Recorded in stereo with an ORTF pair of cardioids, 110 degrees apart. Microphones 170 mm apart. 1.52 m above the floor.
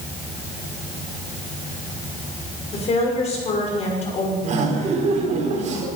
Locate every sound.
2.7 s a woman speaking: 40° left, 5.5 m
4.4 s laughter: 45° right, 4.5 m